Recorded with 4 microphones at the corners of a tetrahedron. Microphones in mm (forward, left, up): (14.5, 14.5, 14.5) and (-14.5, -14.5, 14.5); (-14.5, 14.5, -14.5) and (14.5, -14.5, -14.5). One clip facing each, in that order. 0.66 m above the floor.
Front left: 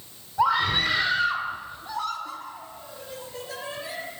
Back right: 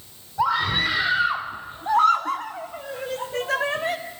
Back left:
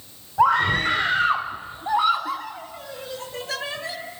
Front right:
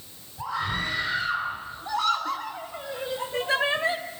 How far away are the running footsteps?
I don't hear running footsteps.